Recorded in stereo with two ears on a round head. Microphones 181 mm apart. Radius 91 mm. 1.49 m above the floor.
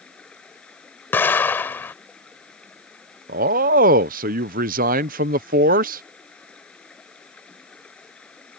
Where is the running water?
5° left (ahead or behind).